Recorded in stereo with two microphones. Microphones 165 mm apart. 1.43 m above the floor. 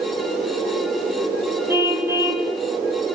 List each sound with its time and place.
1.7 s a car horn: 15° right (ahead or behind), 6 m